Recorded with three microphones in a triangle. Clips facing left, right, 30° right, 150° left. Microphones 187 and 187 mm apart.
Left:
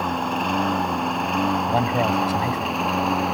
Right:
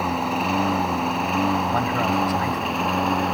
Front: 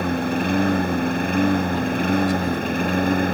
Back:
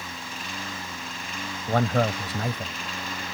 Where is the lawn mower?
5° right; by 3.3 s straight ahead.